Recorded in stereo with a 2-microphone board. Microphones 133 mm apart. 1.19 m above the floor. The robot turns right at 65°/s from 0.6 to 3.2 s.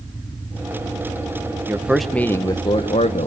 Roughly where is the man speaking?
Ahead.